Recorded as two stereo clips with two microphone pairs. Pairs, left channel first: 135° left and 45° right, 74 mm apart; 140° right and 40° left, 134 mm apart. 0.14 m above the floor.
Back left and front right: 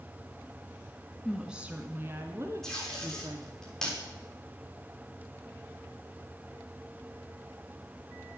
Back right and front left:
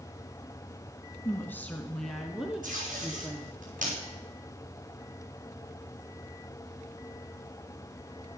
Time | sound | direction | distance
1.2 | a woman speaking | 125° right | 1.0 m
2.6 | tape being pulled | 55° left | 7.5 m